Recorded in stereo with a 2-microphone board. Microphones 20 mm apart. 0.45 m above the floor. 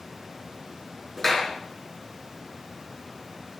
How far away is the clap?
About 6 m.